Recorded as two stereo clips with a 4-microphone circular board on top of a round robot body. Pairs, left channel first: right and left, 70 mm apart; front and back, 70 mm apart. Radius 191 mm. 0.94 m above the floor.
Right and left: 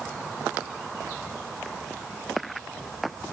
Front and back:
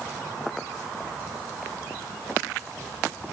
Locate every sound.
Only background noise.